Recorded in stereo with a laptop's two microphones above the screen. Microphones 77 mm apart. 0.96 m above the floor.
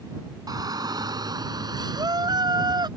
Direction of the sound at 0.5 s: 55° right (ahead or behind).